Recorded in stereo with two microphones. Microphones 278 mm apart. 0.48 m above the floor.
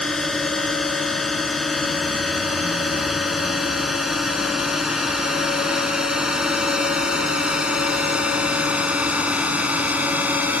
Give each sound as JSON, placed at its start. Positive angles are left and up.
{"t": 0.0, "sound": "a drone", "side_deg": 0}